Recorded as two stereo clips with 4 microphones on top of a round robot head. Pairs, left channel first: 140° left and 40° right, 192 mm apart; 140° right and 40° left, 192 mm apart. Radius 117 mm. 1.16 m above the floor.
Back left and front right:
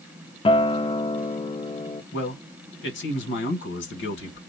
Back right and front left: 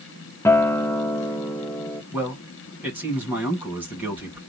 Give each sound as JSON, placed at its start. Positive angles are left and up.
{"t": 0.5, "sound": "a guitar", "azimuth_deg": 155, "distance_m": 0.7}
{"t": 2.1, "sound": "a man speaking", "azimuth_deg": 120, "distance_m": 1.9}